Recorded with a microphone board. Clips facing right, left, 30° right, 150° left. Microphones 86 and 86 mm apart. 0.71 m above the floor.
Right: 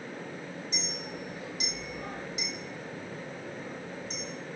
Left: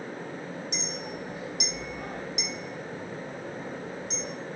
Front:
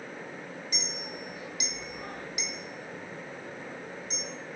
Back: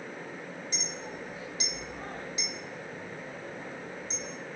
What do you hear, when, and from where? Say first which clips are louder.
0.7 s a clink: left 3 dB, even; 90° left, 0.8 m